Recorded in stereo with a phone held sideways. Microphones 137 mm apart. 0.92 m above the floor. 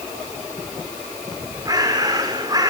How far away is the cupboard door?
I don't hear a cupboard door.